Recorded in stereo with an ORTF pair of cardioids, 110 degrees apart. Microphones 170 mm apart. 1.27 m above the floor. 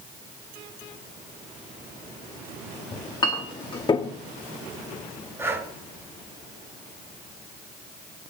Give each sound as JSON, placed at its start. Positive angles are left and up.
{"t": 2.9, "sound": "a clink", "azimuth_deg": 25, "distance_m": 1.6}
{"t": 5.4, "sound": "breathing", "azimuth_deg": -15, "distance_m": 2.5}